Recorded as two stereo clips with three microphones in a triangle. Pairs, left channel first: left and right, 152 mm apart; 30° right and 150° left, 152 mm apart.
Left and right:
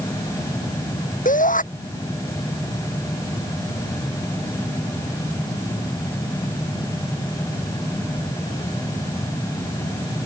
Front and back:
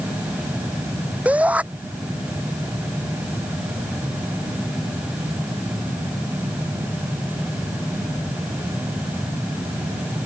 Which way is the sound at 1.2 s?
70° left.